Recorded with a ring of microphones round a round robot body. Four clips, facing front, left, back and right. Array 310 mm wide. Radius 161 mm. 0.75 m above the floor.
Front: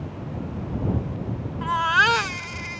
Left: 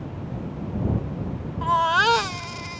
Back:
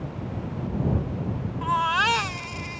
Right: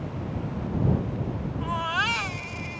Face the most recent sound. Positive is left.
turn(degrees=70)